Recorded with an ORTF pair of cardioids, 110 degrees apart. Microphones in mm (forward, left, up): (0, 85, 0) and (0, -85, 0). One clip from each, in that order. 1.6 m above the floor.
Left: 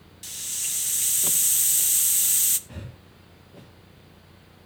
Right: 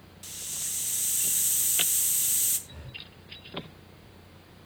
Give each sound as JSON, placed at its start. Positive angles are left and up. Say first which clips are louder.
{"t": 0.2, "sound": "a hiss", "louder": "left 5 dB", "azimuth_deg": 25, "distance_m": 0.9}
{"t": 2.7, "sound": "breathing", "louder": "right 2 dB", "azimuth_deg": 70, "distance_m": 3.0}